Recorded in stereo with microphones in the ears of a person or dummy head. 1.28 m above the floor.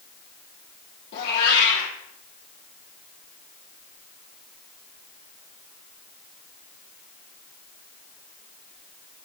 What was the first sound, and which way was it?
A cat meowing, 60° left (ahead or behind).